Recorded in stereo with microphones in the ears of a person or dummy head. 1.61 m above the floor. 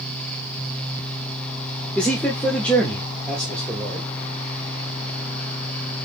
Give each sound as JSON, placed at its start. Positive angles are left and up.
{"t": 1.9, "sound": "a man speaking", "side_deg": 5, "distance_m": 0.6}